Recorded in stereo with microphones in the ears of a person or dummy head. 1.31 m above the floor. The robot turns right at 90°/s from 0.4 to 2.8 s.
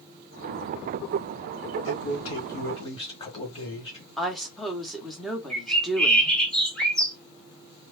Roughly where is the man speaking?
Ahead left.